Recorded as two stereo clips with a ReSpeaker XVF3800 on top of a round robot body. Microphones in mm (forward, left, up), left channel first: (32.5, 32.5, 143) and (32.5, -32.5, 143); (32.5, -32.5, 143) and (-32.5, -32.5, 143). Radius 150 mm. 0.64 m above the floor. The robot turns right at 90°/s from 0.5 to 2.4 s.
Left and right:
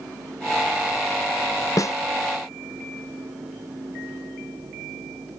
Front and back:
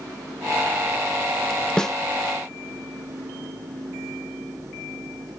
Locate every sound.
1.8 s a snare drum: 75° left, 0.8 m; by 1.9 s 90° left, 0.8 m